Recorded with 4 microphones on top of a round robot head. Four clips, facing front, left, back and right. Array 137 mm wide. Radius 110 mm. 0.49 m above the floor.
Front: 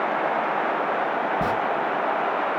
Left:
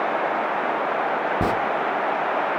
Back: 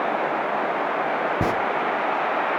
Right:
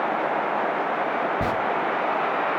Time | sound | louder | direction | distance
1.4 | a zipper | left 3 dB, back 2 dB | 140° left | 0.9 m